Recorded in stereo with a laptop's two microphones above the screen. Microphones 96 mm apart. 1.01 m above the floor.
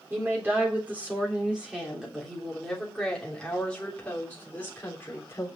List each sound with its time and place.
0.1 s a woman speaking: 20° right (ahead or behind), 3.5 m; by 5.5 s 25° left (ahead or behind), 3.5 m